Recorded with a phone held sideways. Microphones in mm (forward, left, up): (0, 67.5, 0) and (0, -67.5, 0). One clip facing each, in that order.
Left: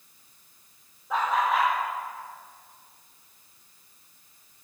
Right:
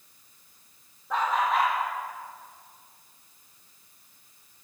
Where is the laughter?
5° left (ahead or behind), 0.8 m.